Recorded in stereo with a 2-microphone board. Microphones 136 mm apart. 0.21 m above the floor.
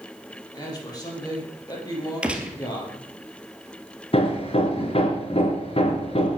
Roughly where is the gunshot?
Centre.